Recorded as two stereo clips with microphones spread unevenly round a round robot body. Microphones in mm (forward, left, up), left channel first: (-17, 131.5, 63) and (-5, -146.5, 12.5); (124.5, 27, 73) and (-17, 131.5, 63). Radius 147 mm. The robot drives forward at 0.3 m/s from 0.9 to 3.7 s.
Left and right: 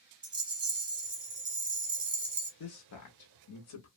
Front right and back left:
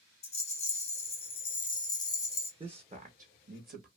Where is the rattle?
45° right, 1.1 m; by 2.5 s 100° right, 1.0 m.